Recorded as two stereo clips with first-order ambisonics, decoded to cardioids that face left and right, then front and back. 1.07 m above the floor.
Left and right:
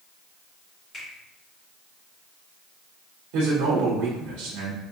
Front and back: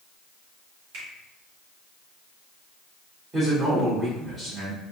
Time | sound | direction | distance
0.9 | a finger snap | 160° left | 2.5 m
3.3 | a man speaking | 110° right | 1.5 m